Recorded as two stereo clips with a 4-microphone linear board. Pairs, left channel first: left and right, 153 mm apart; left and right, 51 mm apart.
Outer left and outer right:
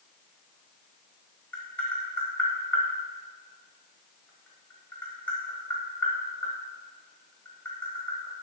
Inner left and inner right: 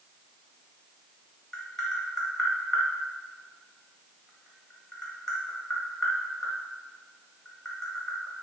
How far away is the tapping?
About 1.2 m.